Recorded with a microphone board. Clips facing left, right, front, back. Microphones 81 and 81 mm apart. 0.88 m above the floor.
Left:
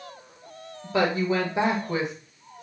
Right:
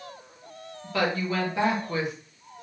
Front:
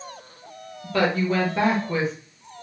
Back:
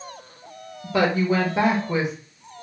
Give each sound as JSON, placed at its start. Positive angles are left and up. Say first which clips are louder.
{"t": 0.8, "sound": "a woman speaking", "louder": "left 3 dB, back 1 dB", "azimuth_deg": 125, "distance_m": 0.8}